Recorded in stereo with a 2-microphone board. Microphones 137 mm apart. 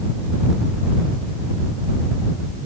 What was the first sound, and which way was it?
Only background noise.